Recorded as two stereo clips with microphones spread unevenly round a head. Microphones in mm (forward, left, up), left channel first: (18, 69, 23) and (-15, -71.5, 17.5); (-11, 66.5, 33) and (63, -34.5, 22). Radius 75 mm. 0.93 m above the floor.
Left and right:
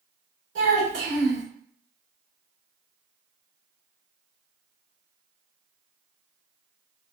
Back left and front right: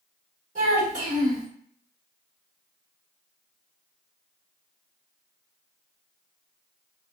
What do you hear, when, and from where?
0.6 s a child speaking: 100° right, 1.5 m